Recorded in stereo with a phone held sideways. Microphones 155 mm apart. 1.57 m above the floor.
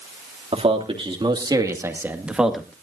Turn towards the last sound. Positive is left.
turn(degrees=5)  # may be behind; listen again after turning